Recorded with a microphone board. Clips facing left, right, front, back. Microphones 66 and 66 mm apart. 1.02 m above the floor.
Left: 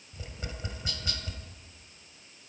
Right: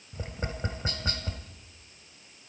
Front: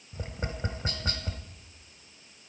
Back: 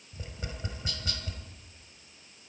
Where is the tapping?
45° right, 1.3 m.